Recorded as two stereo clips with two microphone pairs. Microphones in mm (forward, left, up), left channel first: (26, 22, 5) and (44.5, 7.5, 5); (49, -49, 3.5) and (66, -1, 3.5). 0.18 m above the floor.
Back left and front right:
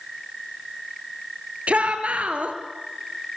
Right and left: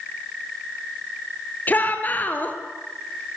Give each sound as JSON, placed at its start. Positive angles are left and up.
{"t": 1.7, "sound": "a shout", "azimuth_deg": -55, "distance_m": 3.0}